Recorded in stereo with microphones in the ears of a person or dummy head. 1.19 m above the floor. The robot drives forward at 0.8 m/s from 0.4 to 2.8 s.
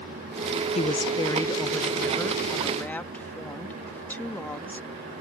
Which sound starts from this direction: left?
A woman speaking, at 0.8 s.